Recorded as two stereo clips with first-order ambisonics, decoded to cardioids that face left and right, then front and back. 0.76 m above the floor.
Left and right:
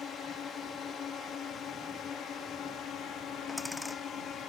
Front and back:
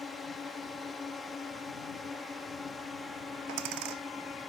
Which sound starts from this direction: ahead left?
A drone, at 0.0 s.